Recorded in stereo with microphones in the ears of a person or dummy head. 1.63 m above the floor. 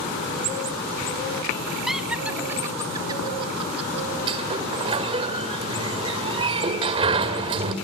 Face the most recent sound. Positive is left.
turn(degrees=-30)  # may be behind; listen again after turning